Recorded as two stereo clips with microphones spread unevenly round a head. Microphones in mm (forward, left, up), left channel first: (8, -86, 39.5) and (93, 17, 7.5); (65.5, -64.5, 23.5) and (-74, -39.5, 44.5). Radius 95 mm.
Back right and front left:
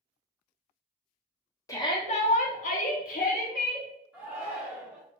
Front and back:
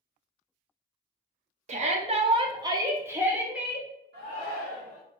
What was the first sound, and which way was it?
A shout, 160° left.